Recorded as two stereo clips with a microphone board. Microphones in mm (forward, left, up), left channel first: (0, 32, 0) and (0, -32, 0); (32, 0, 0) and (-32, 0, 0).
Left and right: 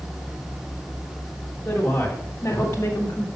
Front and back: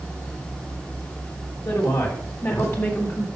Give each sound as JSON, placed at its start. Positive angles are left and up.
{"t": 1.6, "sound": "a woman speaking", "azimuth_deg": 25, "distance_m": 3.0}